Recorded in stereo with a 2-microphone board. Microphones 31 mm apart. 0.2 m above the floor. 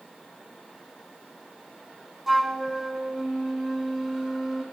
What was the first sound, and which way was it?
A flute, 5° right (ahead or behind).